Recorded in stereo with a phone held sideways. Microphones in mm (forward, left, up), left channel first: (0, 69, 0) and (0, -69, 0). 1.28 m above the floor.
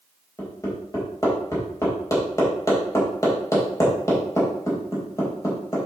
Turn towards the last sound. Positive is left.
turn(degrees=25)  # may be behind; listen again after turning